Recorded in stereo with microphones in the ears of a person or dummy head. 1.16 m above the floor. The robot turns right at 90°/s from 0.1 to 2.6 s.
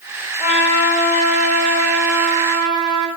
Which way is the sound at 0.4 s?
35° left.